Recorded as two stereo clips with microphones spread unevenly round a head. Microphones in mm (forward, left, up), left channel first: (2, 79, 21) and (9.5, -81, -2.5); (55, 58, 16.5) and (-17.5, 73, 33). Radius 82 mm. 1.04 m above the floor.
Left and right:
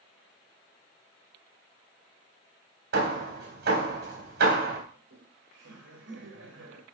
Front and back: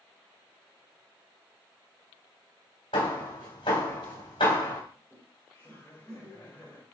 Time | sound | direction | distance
2.9 | hammering | 60° right | 3 m
4.9 | laughter | 85° right | 5 m